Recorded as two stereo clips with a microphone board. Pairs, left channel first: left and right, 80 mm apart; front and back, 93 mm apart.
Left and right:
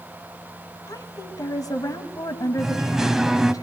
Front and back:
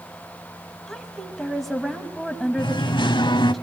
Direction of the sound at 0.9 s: 85° left.